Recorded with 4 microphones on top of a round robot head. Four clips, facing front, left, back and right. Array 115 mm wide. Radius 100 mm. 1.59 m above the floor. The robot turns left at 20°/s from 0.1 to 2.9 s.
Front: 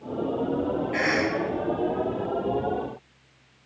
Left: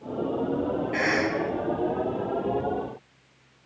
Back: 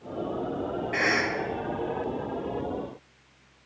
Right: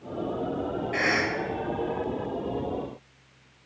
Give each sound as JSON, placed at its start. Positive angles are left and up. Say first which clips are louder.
{"t": 0.9, "sound": "a cough", "louder": "even, even", "azimuth_deg": -170, "distance_m": 1.7}